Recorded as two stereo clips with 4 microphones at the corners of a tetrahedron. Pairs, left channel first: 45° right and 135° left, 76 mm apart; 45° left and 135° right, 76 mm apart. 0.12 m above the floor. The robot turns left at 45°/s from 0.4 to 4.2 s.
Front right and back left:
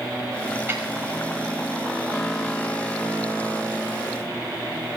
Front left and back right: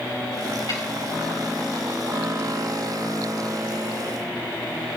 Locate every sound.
0.7 s a snare drum: 75° left, 4.5 m; by 0.8 s 70° left, 4.5 m